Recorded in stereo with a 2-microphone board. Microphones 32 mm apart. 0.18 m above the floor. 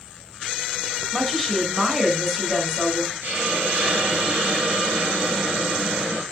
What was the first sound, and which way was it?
A woman speaking, 5° right (ahead or behind).